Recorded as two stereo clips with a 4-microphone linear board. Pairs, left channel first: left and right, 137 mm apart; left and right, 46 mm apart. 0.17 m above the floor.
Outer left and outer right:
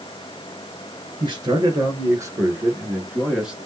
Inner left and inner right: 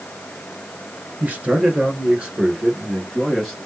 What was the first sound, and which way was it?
A man speaking, 35° right (ahead or behind).